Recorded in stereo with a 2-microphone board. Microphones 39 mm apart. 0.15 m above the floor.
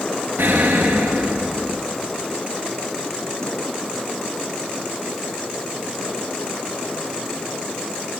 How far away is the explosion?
About 2 m.